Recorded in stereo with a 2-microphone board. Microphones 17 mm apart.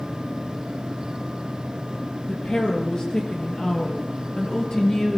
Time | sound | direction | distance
2.3 | a woman speaking | 75° left (ahead or behind) | 5 m